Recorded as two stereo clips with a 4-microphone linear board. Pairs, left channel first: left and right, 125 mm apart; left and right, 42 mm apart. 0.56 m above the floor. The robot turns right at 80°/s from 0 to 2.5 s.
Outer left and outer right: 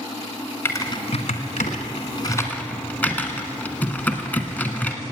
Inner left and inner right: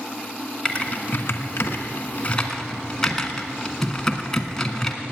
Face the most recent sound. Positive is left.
turn(degrees=15)  # may be behind; listen again after turning